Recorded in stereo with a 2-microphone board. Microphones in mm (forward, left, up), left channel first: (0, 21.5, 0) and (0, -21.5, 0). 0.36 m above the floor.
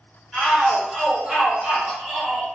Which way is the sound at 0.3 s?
5° right (ahead or behind).